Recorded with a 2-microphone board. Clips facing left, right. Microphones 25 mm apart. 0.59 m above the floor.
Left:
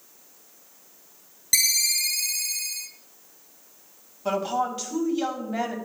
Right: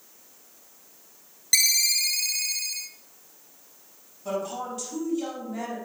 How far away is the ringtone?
About 1.5 m.